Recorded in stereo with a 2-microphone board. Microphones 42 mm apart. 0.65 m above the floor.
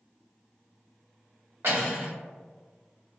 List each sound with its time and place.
1.6 s cutlery clinking: 75° right (ahead or behind), 1.6 m